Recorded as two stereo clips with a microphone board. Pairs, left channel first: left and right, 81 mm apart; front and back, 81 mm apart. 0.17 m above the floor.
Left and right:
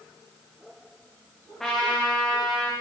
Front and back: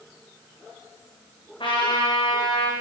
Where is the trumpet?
5° left, 4.5 m.